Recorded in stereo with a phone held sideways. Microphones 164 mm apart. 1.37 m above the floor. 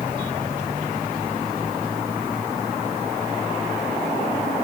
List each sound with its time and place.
Only background noise.